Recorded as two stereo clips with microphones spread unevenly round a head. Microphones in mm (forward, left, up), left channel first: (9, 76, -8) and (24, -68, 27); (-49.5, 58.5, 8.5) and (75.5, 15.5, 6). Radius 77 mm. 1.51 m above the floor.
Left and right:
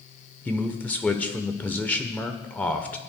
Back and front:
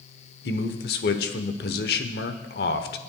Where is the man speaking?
175° left, 0.8 m.